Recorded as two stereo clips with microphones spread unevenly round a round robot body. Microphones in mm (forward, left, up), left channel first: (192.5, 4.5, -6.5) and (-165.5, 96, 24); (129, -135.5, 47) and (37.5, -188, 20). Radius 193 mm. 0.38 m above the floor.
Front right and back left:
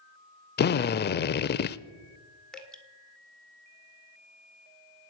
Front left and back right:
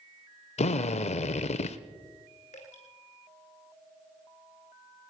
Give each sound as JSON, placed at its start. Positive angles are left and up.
{"t": 0.6, "sound": "a drill", "azimuth_deg": 45, "distance_m": 0.5}
{"t": 2.5, "sound": "dripping", "azimuth_deg": 75, "distance_m": 1.7}